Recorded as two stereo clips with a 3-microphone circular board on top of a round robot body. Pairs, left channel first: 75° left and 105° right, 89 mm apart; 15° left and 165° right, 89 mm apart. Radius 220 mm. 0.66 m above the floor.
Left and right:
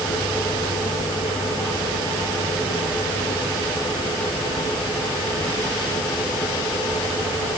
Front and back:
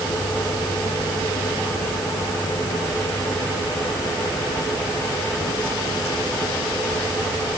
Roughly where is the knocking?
No knocking in this recording.